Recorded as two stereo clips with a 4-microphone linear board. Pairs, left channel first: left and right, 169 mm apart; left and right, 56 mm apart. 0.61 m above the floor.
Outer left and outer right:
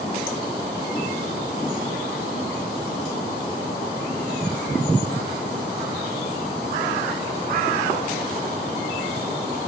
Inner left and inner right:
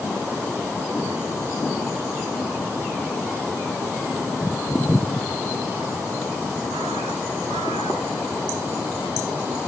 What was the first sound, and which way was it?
Only background noise.